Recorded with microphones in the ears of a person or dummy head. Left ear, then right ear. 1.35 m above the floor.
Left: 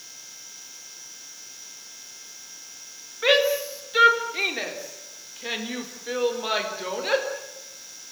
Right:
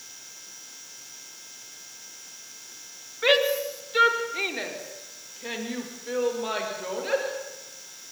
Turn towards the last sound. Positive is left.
turn(degrees=20)  # may be behind; listen again after turning